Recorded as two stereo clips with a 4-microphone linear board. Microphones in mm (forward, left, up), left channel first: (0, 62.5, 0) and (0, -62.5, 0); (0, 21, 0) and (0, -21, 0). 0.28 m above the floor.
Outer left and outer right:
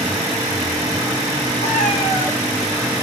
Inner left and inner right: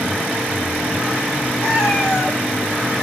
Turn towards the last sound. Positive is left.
turn(degrees=60)  # may be behind; listen again after turning